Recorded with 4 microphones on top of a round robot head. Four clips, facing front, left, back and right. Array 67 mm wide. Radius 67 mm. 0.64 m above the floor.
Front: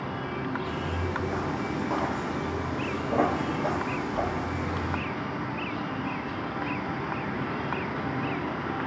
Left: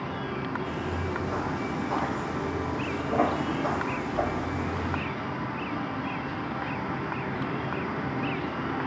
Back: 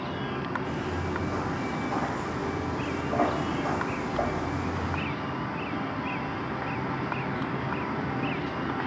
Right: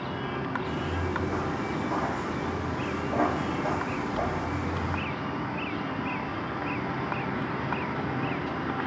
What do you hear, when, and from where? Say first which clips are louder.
0.6 s footsteps: right 1 dB, even; 55° right, 1.1 m; by 5.0 s 40° left, 2.5 m